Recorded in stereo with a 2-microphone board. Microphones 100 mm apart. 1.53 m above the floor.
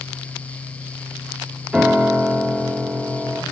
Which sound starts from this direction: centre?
A piano, at 1.7 s.